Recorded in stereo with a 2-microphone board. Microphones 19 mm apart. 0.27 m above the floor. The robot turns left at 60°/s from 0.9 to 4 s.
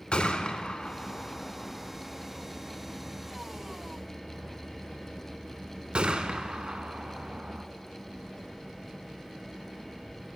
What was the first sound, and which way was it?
A gunshot, 75° left (ahead or behind).